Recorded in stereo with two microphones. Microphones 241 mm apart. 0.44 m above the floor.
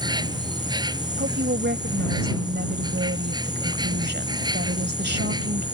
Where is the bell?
I don't hear a bell.